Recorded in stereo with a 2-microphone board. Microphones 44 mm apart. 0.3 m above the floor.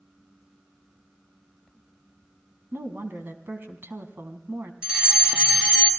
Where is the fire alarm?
25° right (ahead or behind), 2.5 m.